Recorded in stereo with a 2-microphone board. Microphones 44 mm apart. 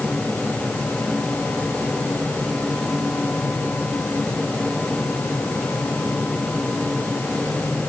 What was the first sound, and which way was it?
Only background noise.